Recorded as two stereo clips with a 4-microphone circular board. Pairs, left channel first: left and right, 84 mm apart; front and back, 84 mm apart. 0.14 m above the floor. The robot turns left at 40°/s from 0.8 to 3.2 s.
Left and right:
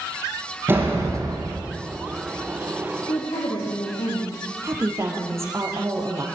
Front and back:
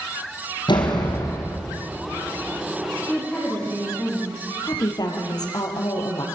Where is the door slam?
30° right, 5 m; by 1.6 s 60° right, 5 m.